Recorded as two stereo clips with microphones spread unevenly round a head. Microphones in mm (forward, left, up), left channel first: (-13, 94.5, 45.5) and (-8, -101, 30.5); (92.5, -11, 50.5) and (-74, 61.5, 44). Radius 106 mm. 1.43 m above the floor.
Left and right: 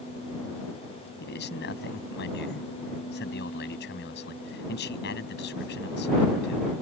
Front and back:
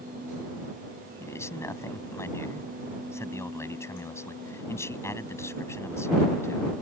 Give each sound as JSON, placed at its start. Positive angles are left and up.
{"t": 1.2, "sound": "a man speaking", "azimuth_deg": 50}